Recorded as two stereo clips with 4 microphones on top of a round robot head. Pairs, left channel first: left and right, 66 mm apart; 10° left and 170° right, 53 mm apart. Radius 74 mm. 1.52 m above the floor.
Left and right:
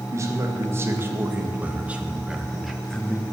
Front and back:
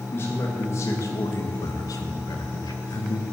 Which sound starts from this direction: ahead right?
A man speaking, at 0.1 s.